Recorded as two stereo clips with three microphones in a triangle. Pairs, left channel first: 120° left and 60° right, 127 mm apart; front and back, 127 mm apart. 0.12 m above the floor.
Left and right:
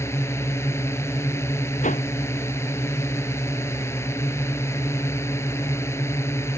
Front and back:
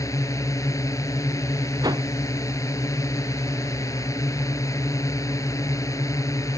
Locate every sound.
0.0 s a drone: 55° left
1.8 s a whoosh: 120° left